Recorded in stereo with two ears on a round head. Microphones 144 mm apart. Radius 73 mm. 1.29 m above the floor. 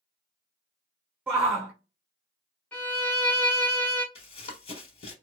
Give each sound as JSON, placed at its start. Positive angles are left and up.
{"t": 1.3, "sound": "a shout", "side_deg": -10, "distance_m": 0.8}
{"t": 2.7, "sound": "a violin", "side_deg": 10, "distance_m": 1.0}
{"t": 4.2, "sound": "running footsteps", "side_deg": 40, "distance_m": 1.6}